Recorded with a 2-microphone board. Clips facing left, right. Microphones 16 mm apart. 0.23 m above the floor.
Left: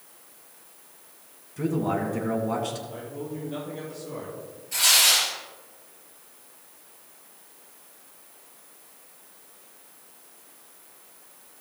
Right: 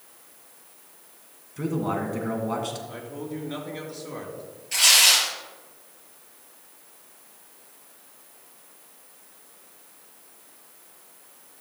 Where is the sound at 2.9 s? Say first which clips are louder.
Even; 70° right (ahead or behind), 4 m.